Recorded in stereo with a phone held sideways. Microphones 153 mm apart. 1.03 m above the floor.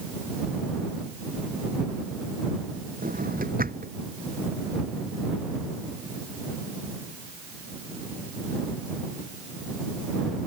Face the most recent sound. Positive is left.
turn(degrees=-75)  # may be behind; listen again after turning